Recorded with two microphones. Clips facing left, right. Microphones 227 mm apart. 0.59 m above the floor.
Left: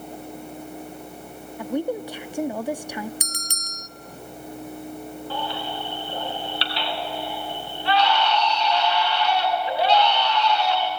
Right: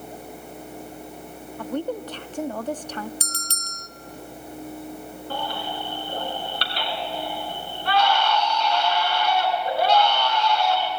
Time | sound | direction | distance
1.6 | a woman speaking | 10° left (ahead or behind) | 0.6 m
3.2 | a bell | 15° left (ahead or behind) | 0.5 m
5.3 | a baby crying | 50° right (ahead or behind) | 3 m